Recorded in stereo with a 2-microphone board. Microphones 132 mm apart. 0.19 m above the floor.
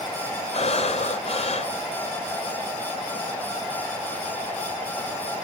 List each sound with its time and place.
0.5 s breathing: 55° left (ahead or behind), 0.6 m